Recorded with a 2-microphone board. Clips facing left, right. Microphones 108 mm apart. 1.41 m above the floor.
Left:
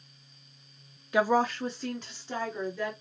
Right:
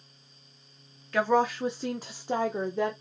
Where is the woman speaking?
15° left (ahead or behind), 0.5 m; by 2.9 s 55° right (ahead or behind), 1.1 m.